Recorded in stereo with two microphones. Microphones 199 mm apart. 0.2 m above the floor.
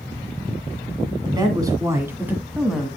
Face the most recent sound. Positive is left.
turn(degrees=0)  # may be behind; listen again after turning